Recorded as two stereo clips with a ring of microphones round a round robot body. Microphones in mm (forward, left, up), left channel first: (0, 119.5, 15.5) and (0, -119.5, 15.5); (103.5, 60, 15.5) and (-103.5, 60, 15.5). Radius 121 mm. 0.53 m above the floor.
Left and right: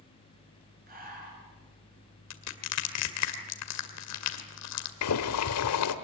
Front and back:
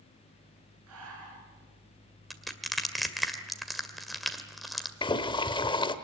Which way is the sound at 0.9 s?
145° right.